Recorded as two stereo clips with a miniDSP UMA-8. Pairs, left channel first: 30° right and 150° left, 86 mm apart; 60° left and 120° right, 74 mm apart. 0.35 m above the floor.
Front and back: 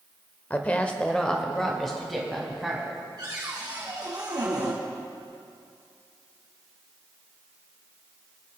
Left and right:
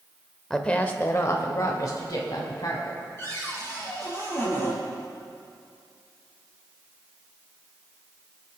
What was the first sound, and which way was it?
A woman speaking, 15° right.